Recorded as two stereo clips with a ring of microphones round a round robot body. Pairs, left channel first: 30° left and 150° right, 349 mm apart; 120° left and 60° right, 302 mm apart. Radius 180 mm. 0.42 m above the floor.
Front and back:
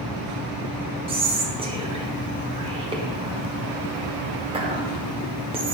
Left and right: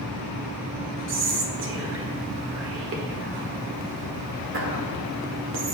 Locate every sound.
1.1 s whispering: 80° right, 1.0 m